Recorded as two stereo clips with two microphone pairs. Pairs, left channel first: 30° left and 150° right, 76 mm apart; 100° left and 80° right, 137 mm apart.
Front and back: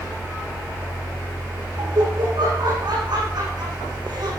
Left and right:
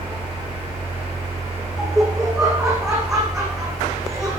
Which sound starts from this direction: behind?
Laughter, at 1.8 s.